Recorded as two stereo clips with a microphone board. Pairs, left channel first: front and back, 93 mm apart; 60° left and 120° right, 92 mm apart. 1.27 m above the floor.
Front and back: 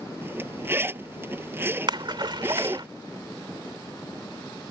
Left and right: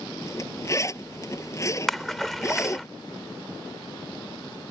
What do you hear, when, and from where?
0.2 s a zipper: 115° left
1.9 s a splash: 145° left